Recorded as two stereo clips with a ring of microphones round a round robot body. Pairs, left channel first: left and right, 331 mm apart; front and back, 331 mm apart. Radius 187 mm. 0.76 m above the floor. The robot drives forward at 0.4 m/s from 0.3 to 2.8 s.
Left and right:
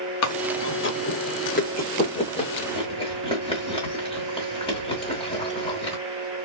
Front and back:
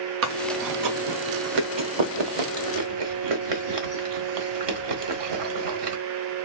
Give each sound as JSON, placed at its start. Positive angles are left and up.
{"t": 0.2, "sound": "chewing", "azimuth_deg": 130, "distance_m": 0.5}